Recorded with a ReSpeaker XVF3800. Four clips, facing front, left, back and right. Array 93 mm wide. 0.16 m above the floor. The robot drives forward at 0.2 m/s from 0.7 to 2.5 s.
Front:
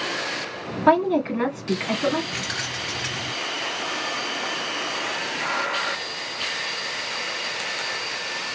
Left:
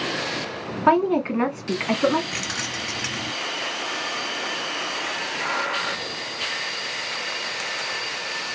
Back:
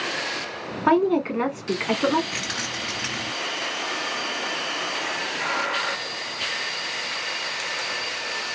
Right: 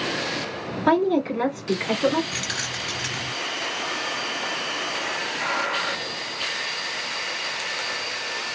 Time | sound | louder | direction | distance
0.9 | a woman speaking | left 1 dB, front 1 dB | 110° left | 1.4 m
2.3 | keys jangling | left 1 dB, even | 105° left | 1.1 m